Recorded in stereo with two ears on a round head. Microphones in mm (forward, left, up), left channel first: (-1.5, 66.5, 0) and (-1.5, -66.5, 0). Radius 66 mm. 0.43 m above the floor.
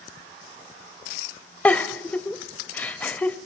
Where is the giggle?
10° left (ahead or behind), 0.5 m.